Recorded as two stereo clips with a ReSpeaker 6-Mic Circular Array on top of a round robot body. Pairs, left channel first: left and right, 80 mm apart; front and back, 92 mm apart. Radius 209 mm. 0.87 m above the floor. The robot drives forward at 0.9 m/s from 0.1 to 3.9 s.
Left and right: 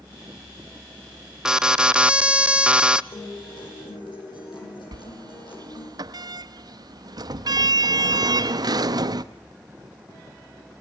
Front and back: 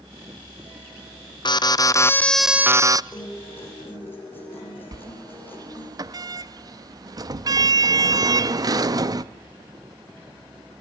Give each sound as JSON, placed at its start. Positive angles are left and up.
{"t": 1.4, "sound": "an alarm", "azimuth_deg": -10, "distance_m": 1.2}
{"t": 3.1, "sound": "a guitar", "azimuth_deg": 65, "distance_m": 9.5}
{"t": 4.9, "sound": "a sliding door", "azimuth_deg": -130, "distance_m": 0.7}